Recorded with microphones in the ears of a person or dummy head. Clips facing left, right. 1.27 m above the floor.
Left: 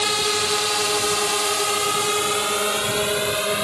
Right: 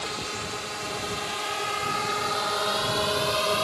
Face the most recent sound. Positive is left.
turn(degrees=20)  # may be behind; listen again after turning